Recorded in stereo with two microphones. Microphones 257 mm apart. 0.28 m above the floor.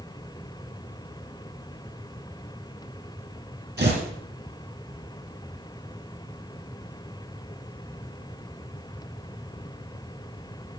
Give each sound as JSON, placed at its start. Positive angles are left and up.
{"t": 3.8, "sound": "tearing paper", "side_deg": -40, "distance_m": 3.5}